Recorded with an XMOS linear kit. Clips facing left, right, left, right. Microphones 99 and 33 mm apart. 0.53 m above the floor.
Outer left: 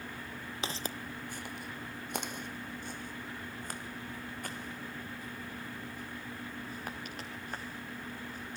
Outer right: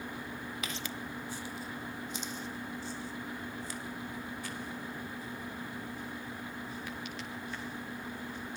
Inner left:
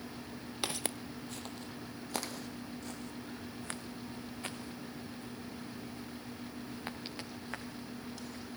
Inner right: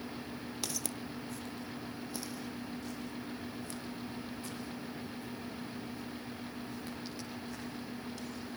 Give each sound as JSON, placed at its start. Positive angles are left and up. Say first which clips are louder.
{"t": 0.6, "sound": "footsteps", "louder": "outer left 1 dB, inner left 5 dB", "side_deg": 30, "distance_m": 0.7}